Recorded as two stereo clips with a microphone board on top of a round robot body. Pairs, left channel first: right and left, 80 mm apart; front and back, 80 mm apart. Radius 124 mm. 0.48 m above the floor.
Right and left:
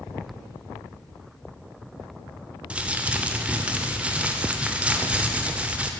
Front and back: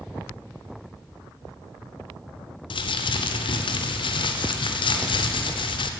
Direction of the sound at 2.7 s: 15° left.